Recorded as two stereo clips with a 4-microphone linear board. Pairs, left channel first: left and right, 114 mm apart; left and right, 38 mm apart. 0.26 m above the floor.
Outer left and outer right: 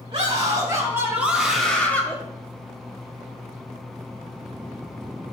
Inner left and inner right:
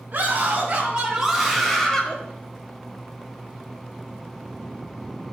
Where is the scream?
40° right (ahead or behind), 1.9 m; by 2.2 s 20° left (ahead or behind), 1.6 m.